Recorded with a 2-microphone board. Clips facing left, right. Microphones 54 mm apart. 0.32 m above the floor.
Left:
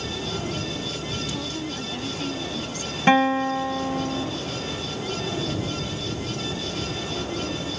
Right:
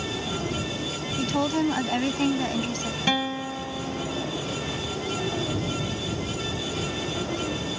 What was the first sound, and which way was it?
A woman speaking, 55° right (ahead or behind).